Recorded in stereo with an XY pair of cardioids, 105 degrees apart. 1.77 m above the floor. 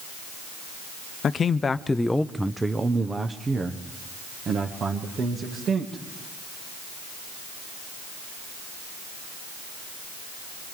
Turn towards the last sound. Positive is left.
turn(degrees=-55)